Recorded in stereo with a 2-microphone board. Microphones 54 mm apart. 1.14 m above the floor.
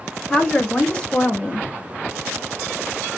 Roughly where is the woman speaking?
Centre.